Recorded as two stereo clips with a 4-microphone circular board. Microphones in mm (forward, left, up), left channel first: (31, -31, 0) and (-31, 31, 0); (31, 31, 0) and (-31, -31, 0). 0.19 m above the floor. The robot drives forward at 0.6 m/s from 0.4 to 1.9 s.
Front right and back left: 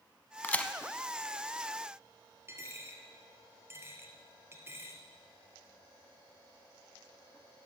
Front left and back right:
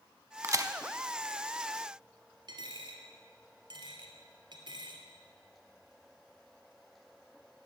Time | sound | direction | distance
0.4 | a crack | 100° right | 0.6 m
2.5 | a dropped coin | 165° right | 1.5 m